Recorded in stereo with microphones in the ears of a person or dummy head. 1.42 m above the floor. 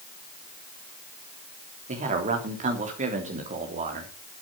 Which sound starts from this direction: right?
A man speaking, at 1.9 s.